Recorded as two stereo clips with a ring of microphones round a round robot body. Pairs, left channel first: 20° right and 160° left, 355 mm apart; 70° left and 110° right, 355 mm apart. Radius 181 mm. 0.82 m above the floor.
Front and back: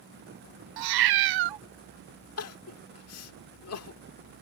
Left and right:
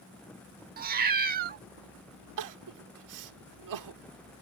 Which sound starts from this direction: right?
Crying, at 2.4 s.